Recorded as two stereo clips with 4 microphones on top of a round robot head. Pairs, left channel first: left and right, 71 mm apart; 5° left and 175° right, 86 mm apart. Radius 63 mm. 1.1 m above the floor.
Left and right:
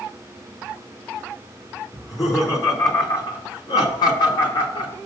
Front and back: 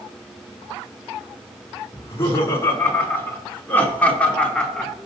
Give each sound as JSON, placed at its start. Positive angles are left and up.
{"t": 1.9, "sound": "laughter", "azimuth_deg": 60, "distance_m": 3.5}